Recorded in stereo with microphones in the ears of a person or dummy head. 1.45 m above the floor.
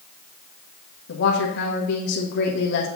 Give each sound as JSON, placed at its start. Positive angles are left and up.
{"t": 1.1, "sound": "a woman speaking", "side_deg": 65, "distance_m": 1.3}